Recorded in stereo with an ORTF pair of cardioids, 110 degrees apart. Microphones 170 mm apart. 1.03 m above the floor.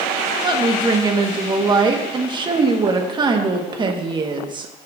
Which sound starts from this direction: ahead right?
A woman speaking, at 0.4 s.